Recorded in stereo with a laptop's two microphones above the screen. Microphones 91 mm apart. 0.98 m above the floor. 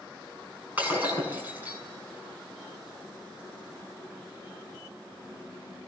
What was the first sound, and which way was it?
Breaking glass, 20° right (ahead or behind).